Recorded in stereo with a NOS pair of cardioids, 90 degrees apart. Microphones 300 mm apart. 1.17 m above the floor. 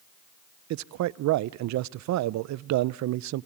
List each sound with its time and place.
0.7 s a man speaking: 70° right, 0.5 m